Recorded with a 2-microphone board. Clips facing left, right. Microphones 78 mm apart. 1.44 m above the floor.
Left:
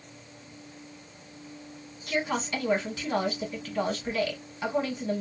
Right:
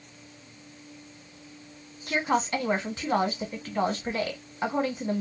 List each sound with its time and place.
2.1 s a woman speaking: 35° right (ahead or behind), 1.3 m